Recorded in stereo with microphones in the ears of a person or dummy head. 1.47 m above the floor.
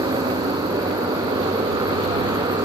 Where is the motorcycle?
15° right (ahead or behind).